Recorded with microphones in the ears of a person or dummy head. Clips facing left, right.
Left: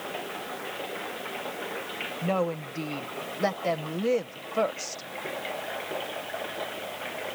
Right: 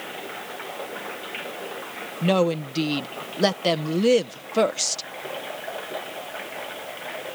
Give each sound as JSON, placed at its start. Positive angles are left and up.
{"t": 2.2, "sound": "a woman speaking", "side_deg": -50}